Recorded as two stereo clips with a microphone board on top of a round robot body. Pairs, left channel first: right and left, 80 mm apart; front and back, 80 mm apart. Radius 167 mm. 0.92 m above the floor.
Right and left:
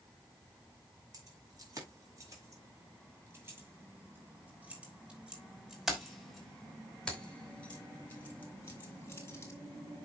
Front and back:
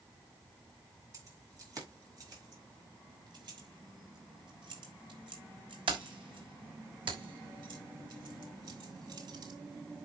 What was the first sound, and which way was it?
Keys jangling, 135° left.